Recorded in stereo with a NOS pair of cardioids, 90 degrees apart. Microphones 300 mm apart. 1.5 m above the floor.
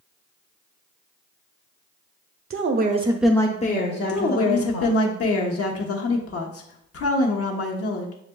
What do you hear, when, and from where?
2.5 s a woman speaking: 50° right, 0.9 m; by 5.0 s 60° left, 1.7 m
4.1 s a woman speaking: 50° left, 1.1 m